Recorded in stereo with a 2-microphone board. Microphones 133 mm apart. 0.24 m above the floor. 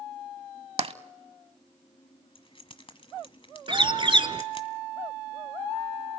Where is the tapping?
50° right (ahead or behind), 0.6 m.